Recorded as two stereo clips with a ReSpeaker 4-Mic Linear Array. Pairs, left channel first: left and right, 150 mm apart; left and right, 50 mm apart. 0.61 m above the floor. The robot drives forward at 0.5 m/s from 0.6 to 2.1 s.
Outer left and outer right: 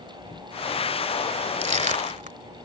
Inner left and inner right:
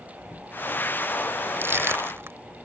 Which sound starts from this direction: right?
Crushing, at 1.6 s.